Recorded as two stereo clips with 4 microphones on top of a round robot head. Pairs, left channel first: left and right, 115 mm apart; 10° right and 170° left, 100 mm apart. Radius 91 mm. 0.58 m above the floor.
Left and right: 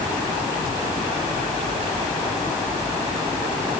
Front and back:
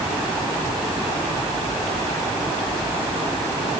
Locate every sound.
Only background noise.